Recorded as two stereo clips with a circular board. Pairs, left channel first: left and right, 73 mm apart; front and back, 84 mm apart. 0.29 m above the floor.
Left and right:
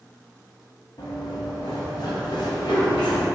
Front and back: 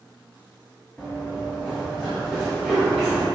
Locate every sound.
1.0 s running footsteps: 75° left, 0.8 m; by 3.3 s 95° left, 2 m